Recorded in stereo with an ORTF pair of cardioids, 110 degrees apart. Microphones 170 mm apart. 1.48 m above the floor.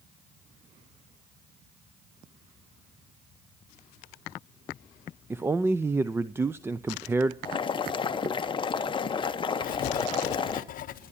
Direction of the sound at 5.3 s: 15° right.